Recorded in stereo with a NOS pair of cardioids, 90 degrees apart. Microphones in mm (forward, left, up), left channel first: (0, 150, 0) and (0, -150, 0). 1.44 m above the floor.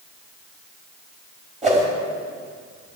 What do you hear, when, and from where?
1.6 s a whoosh: 25° right, 5 m